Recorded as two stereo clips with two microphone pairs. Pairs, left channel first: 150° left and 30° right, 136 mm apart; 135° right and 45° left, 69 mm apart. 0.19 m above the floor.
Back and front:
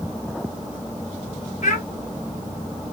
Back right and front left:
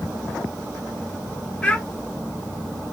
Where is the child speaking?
155° left, 2 m.